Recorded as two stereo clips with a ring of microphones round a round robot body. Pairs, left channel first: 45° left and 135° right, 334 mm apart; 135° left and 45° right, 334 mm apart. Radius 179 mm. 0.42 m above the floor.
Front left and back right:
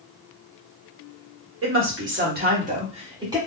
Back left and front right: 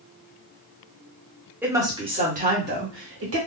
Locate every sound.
1.6 s a woman speaking: 125° right, 1.5 m; by 3.4 s 60° right, 1.6 m